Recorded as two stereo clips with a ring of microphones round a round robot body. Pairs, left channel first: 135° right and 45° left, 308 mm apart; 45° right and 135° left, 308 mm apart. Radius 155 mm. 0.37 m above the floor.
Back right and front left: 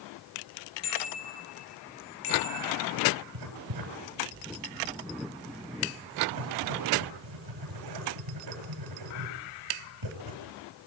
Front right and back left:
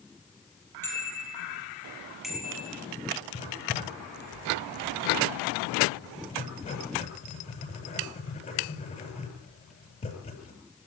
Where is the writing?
25° left, 7.5 m.